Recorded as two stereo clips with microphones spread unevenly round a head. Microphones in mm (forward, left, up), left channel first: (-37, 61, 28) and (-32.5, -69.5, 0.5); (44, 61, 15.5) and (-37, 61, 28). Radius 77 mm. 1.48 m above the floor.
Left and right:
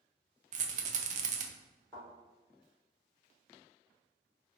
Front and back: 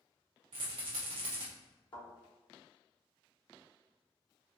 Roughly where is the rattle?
Behind right.